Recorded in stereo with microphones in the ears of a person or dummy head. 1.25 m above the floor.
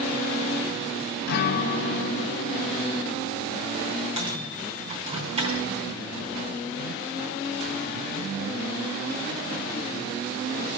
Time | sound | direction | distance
1.3 | a guitar | 60° left (ahead or behind) | 0.5 m
4.2 | a microwave | 30° right (ahead or behind) | 3.5 m